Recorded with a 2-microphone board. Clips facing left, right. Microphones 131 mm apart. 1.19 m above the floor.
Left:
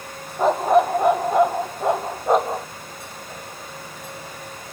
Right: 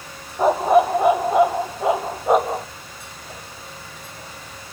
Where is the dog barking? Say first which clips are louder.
Right 1 dB; 5° right (ahead or behind).